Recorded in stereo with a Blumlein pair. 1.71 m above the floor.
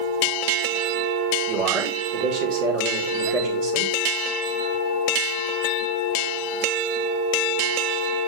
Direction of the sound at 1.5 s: 45° right.